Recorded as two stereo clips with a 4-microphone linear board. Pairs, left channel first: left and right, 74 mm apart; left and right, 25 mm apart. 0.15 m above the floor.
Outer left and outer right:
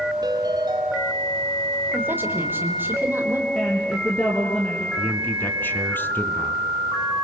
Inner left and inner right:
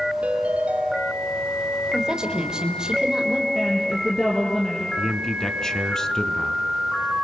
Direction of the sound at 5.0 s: 25° left (ahead or behind).